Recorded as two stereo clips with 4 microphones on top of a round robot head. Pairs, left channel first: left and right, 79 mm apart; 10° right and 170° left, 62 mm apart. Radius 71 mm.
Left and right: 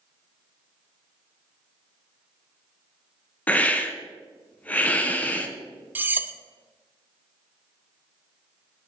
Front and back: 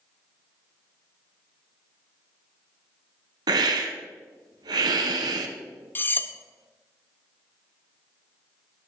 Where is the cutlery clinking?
40° right, 0.7 m.